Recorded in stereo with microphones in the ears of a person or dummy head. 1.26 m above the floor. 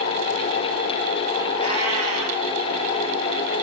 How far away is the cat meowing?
About 7 m.